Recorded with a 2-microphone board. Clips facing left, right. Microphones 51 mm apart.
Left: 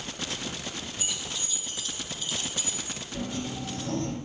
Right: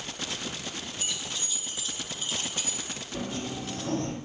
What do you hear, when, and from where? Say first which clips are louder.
1.0 s keys jangling: right 1 dB; 10° left (ahead or behind), 2.5 m; by 3.0 s 50° right (ahead or behind), 2.5 m
3.1 s a sliding door: even; 20° right (ahead or behind), 8.5 m